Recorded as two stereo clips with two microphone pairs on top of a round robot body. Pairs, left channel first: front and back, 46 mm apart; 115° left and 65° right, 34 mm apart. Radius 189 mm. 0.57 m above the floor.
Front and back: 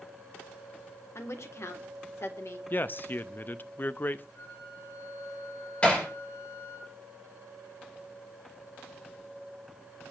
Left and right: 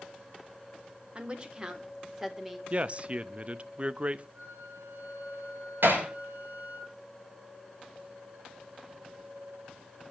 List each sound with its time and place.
1.1 s a woman speaking: 10° right, 2.5 m; by 2.6 s 15° left, 3 m
2.7 s a man speaking: 25° right, 0.9 m
4.3 s a flute: 25° right, 8.5 m
5.8 s hammering: 65° right, 6.5 m